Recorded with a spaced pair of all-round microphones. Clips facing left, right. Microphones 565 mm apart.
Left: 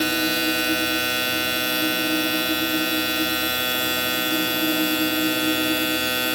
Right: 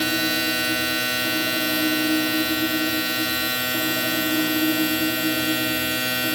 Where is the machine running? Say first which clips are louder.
Left 1 dB; 25° right (ahead or behind).